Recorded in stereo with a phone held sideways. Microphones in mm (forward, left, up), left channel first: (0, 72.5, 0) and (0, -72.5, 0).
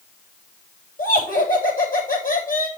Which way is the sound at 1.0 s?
80° left.